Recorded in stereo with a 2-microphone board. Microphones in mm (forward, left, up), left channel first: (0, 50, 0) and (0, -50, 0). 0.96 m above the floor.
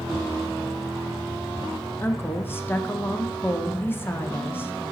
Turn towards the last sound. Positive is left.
turn(degrees=20)  # may be behind; listen again after turning